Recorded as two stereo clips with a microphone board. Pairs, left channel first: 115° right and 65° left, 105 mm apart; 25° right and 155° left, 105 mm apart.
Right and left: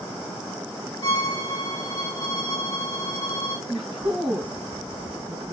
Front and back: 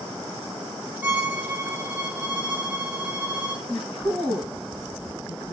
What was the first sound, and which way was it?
A violin, 135° right.